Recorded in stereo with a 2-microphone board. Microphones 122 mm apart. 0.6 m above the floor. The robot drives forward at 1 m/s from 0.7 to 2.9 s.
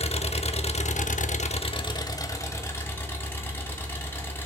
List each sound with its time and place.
0.0 s an engine running: 55° left (ahead or behind), 0.7 m; by 4.5 s 20° left (ahead or behind), 1.9 m